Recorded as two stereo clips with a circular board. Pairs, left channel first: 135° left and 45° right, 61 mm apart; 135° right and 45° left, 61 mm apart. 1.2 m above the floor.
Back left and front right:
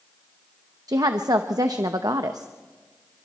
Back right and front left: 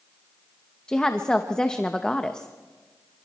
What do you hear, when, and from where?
0.9 s a woman speaking: 60° right, 0.9 m